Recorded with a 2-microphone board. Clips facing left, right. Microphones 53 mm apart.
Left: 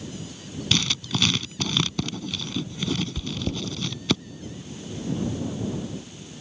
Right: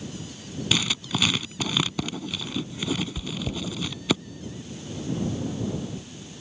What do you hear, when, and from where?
0.7 s writing: 10° right (ahead or behind)
3.2 s chewing: centre (ahead or behind)